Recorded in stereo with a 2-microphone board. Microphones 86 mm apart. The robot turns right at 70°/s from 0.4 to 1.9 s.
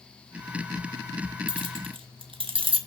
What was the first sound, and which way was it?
Keys jangling, 65° right (ahead or behind).